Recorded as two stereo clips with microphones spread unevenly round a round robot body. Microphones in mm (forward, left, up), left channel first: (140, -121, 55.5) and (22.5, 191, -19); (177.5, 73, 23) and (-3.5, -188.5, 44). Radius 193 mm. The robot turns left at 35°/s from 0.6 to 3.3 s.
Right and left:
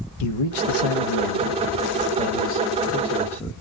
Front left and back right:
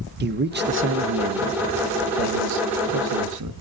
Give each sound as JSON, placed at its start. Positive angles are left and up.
{"t": 0.2, "sound": "a man speaking", "azimuth_deg": -65, "distance_m": 0.8}